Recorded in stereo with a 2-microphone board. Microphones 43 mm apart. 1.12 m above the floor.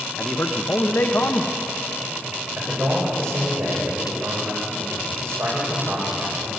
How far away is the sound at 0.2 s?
About 0.8 m.